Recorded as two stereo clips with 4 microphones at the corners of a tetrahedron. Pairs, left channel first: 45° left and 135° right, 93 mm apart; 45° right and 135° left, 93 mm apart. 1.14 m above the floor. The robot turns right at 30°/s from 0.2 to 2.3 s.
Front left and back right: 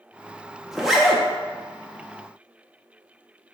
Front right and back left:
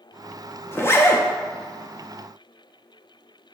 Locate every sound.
0.7 s a zipper: 50° right, 0.5 m; by 1.2 s 35° right, 0.5 m